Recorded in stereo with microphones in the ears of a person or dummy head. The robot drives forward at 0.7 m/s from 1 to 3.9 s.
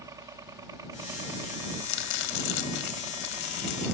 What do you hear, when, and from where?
0.0 s a helicopter: 20° right (ahead or behind)
1.8 s chopping: 80° left